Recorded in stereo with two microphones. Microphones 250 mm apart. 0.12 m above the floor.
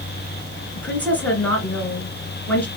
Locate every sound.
0.8 s a woman speaking: 5° left (ahead or behind), 1.8 m